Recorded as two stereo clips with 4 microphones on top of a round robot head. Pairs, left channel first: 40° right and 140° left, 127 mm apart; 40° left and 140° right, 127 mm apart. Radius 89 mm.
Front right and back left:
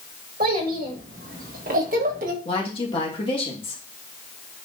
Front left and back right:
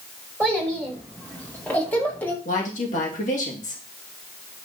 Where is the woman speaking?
10° left, 2.5 m.